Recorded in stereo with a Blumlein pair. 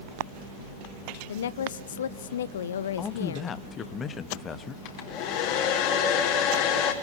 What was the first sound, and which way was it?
A woman speaking, 65° left.